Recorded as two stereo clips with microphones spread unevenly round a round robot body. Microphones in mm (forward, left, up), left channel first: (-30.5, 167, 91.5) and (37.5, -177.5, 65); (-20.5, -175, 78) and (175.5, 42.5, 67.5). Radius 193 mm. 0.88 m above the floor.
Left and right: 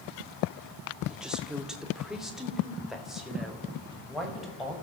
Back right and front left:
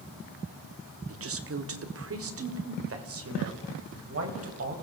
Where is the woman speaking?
10° left, 1.9 m.